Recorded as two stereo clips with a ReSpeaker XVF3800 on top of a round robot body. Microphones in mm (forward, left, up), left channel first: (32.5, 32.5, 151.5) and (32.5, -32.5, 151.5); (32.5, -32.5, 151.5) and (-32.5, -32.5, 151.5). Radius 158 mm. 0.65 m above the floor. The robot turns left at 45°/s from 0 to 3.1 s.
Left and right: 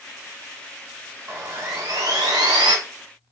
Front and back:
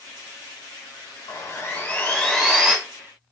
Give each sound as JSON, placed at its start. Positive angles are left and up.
{"t": 1.3, "sound": "sawing", "azimuth_deg": -35, "distance_m": 0.8}